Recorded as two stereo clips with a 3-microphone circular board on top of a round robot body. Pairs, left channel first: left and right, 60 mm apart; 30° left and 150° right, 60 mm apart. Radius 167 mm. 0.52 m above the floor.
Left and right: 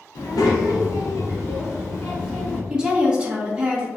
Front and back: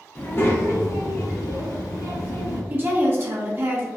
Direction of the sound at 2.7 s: 155° right.